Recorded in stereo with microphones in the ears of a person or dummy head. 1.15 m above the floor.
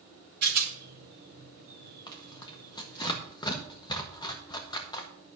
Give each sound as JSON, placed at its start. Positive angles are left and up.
{"t": 0.4, "sound": "a rattle", "side_deg": -55, "distance_m": 1.9}
{"t": 2.1, "sound": "tearing paper", "side_deg": 20, "distance_m": 1.5}